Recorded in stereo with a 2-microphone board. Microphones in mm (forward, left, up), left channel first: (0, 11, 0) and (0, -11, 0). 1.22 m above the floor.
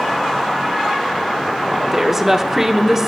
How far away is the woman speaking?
About 1.2 m.